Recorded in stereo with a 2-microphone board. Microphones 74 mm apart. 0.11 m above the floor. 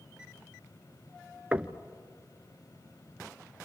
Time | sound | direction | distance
1.5 | knocking | 15° right (ahead or behind) | 0.8 m